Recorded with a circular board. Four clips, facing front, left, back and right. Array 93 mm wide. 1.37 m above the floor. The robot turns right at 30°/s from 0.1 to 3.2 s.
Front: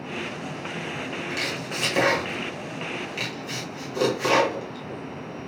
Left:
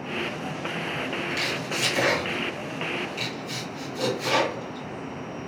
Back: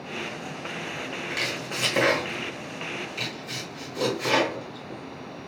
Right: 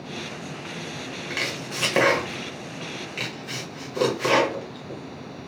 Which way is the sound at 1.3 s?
110° right.